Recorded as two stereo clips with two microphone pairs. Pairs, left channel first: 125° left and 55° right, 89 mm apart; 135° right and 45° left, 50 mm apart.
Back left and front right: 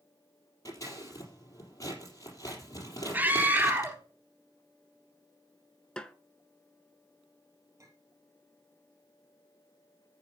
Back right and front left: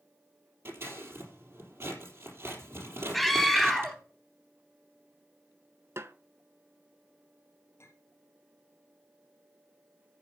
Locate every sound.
0.7 s scissors: 75° left, 4 m
3.1 s a scream: 50° right, 1.3 m
6.0 s a snare drum: 45° left, 0.7 m
7.8 s a clink: 110° right, 3.5 m